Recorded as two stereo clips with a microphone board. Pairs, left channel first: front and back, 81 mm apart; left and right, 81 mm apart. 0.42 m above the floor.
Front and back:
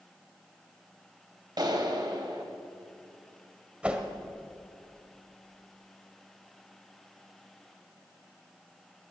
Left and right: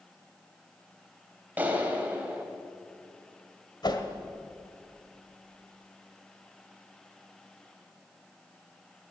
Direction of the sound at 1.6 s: 155° right.